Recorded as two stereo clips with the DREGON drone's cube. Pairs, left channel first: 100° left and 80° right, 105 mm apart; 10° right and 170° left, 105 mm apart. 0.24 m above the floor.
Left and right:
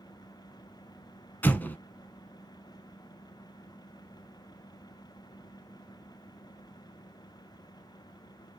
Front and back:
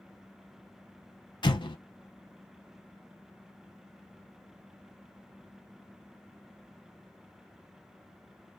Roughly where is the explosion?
Ahead left.